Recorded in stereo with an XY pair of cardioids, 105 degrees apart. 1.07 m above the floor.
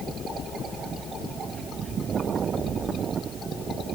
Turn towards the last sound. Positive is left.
No sound to turn to.